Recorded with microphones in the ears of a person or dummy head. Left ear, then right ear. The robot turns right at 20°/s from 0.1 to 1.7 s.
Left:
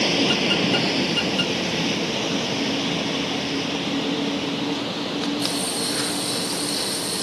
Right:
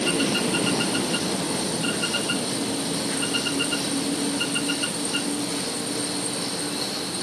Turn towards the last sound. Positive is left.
turn(degrees=45)  # may be behind; listen again after turning